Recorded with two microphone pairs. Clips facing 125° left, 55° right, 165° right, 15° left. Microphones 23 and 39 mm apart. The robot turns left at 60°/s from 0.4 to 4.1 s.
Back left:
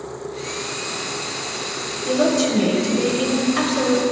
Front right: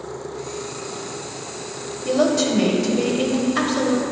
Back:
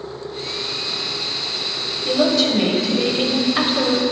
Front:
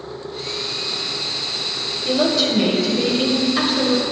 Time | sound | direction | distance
2.0 | a woman speaking | 60° right | 0.9 m